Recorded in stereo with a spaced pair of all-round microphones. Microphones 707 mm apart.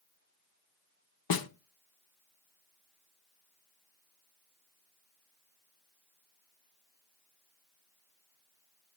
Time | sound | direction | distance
1.3 | a snare drum | 35° left (ahead or behind) | 0.5 m